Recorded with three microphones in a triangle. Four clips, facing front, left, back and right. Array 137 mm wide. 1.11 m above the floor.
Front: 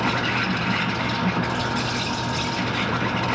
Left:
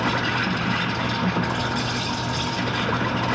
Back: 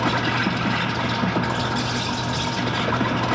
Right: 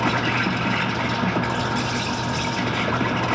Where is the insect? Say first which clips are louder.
Right 2 dB, back 2 dB; 140° right, 1.7 m.